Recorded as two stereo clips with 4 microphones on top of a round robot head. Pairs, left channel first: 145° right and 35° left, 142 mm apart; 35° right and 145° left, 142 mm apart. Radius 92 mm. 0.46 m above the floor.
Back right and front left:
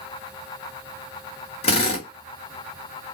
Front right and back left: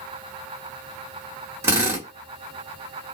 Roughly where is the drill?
Behind right.